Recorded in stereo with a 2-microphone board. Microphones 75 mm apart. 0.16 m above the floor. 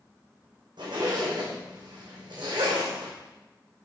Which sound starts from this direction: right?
A zipper, at 0.8 s.